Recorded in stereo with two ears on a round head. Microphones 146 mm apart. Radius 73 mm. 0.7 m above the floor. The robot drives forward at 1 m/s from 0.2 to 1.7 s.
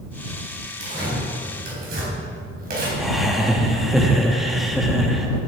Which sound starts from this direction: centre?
Laughter, at 3.0 s.